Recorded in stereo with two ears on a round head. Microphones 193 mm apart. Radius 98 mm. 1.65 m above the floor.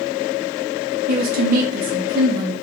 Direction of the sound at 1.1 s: 45° right (ahead or behind).